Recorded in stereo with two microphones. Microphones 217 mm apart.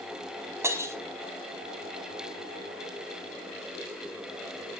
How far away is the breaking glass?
About 3 m.